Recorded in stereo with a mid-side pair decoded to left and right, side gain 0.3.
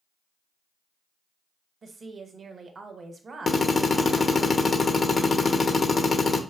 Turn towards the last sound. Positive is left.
turn(degrees=50)